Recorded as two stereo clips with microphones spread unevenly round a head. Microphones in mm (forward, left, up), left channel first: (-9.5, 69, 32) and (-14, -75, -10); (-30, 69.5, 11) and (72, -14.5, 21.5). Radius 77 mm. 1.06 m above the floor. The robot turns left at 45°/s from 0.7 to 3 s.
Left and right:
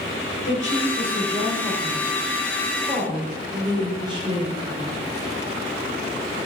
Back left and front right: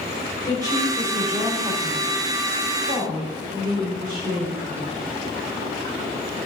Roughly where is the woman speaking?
Left.